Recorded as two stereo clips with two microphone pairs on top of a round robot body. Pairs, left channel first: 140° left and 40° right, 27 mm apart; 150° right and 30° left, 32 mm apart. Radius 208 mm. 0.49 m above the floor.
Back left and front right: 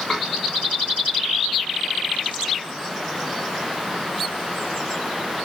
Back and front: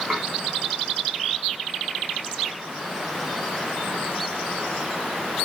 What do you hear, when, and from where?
0.1 s dishes clattering: 110° left, 5 m